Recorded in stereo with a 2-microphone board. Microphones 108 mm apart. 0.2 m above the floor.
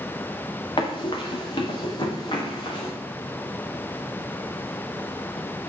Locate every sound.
0.8 s running footsteps: 50° left (ahead or behind), 1.8 m; by 2.9 s 45° left (ahead or behind), 3 m